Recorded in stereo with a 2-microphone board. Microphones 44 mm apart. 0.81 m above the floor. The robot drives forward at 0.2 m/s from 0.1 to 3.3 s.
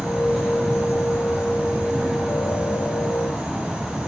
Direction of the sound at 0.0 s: 75° left (ahead or behind).